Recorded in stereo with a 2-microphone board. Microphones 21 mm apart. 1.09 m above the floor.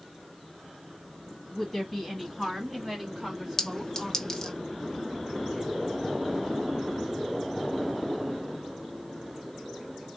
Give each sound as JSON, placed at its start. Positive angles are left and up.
{"t": 1.5, "sound": "a woman speaking", "side_deg": 0, "distance_m": 2.0}
{"t": 3.6, "sound": "a clink", "side_deg": 25, "distance_m": 0.7}